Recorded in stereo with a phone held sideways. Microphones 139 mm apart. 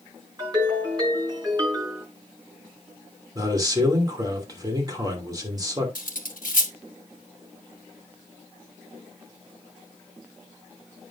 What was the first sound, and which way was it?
A ringtone, 30° right (ahead or behind).